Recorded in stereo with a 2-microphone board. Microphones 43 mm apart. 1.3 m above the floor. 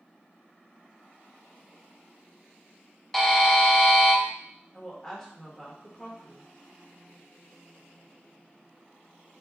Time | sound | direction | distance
3.1 | a buzzer | centre (ahead or behind) | 0.6 m
4.7 | a woman speaking | 10° left (ahead or behind) | 1.4 m